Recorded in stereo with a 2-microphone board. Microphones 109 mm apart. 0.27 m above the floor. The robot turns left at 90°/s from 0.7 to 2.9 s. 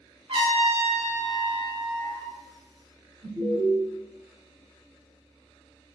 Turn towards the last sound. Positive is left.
turn(degrees=-30)  # may be behind; listen again after turning